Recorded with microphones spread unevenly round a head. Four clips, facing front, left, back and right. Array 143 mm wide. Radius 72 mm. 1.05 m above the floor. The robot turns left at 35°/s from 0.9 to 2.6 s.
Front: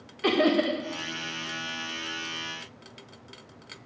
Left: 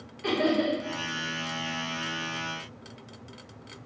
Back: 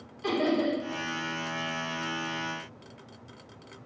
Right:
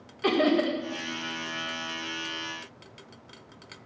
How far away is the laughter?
About 1.6 m.